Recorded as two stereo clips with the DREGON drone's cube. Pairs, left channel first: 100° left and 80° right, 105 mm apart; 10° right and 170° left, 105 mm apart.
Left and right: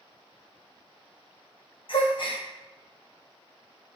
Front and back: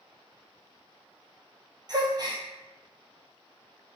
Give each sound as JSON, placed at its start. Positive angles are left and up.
{"t": 1.9, "sound": "a gasp", "azimuth_deg": 125, "distance_m": 0.8}